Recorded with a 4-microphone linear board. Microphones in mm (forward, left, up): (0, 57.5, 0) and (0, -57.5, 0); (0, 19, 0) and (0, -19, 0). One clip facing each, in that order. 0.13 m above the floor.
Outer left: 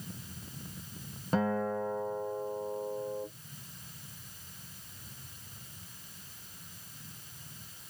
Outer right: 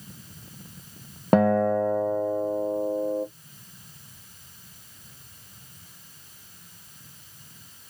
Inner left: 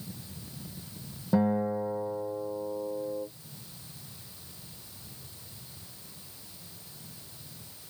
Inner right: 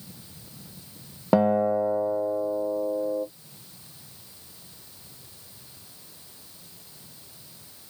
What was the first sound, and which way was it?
A guitar, 65° right (ahead or behind).